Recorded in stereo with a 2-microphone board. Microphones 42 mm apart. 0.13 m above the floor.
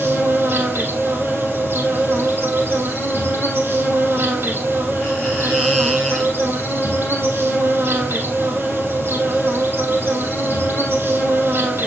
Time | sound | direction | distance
0.0 | an insect | 60° right (ahead or behind) | 3 m